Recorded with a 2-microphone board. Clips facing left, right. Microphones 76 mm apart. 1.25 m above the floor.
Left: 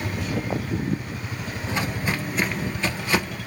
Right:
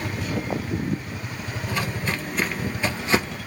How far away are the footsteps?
About 1.4 m.